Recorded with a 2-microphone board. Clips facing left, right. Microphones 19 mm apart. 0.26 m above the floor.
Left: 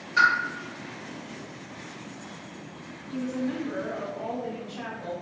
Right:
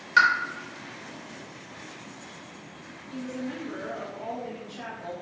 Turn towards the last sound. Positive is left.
turn(degrees=25)  # may be behind; listen again after turning